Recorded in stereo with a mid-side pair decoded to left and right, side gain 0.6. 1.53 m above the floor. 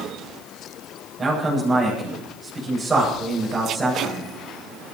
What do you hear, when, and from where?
1.2 s a man speaking: 15° right, 9.5 m